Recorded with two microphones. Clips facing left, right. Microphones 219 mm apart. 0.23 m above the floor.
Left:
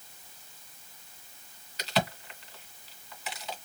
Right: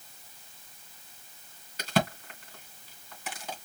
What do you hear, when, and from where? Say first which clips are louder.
1.8 s a crack: right 2 dB; 50° right (ahead or behind), 2.5 m